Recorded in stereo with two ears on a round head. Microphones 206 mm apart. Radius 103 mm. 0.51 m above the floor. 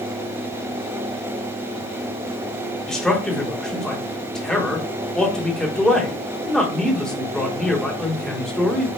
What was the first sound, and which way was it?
A man speaking, 5° left (ahead or behind).